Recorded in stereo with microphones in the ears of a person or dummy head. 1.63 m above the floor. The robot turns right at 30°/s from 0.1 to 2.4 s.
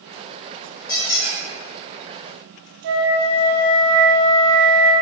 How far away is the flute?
About 0.9 m.